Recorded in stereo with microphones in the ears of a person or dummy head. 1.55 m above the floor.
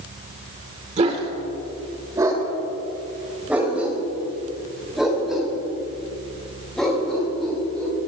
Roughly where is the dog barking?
Right.